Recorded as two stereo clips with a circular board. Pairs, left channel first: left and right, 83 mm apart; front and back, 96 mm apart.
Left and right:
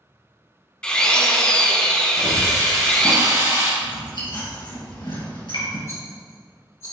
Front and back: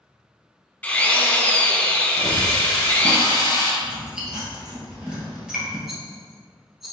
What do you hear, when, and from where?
0.8 s a drill: 35° left, 0.6 m
2.2 s a hiss: 45° right, 1.8 m
3.8 s chewing: 100° left, 1.8 m
5.9 s a rattle: 95° left, 1.2 m